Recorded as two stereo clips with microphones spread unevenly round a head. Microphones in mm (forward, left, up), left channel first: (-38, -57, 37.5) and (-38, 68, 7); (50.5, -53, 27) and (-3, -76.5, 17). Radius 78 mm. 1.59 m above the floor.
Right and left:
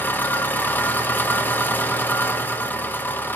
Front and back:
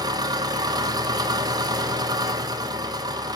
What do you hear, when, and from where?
0.0 s an engine running: 165° right, 0.8 m